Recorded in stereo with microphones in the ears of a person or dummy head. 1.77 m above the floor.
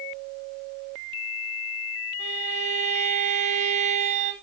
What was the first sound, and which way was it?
A violin, 40° right (ahead or behind).